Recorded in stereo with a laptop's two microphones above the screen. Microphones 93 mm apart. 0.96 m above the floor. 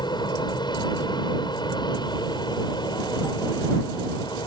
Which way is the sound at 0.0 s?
55° left (ahead or behind).